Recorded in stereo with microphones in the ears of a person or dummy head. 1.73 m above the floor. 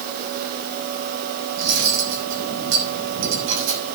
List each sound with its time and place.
1.6 s cutlery clinking: 75° right (ahead or behind), 6.5 m